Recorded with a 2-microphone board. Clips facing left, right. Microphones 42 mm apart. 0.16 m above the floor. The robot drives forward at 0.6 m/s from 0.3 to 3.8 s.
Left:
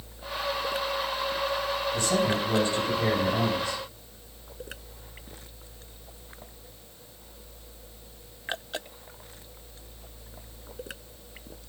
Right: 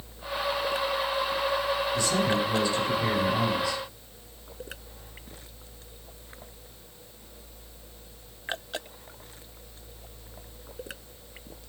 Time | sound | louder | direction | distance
1.9 | a man speaking | left 1 dB | 45° left (ahead or behind) | 6.5 m